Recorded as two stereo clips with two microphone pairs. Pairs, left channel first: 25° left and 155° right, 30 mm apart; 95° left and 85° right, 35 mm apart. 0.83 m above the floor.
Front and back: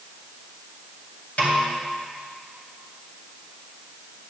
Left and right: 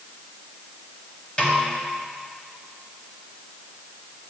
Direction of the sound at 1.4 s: 40° left.